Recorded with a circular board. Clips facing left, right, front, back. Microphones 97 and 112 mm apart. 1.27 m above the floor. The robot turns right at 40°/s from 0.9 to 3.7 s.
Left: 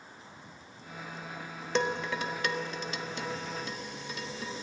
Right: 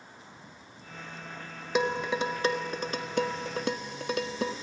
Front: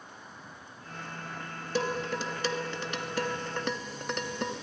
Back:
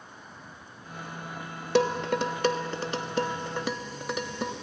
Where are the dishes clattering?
175° right, 1.3 m; by 4.5 s 95° right, 1.3 m.